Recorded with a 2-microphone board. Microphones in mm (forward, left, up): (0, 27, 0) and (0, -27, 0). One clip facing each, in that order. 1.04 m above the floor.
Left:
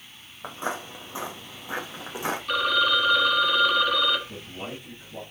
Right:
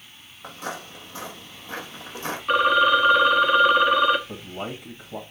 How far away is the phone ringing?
About 1.0 m.